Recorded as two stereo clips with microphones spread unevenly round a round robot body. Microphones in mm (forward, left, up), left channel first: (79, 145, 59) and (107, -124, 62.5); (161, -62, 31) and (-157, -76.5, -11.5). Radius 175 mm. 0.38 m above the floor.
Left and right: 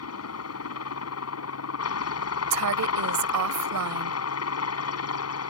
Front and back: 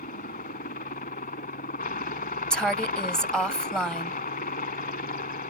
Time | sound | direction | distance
0.0 | a helicopter | 70° left | ?
2.5 | a woman speaking | 90° right | ?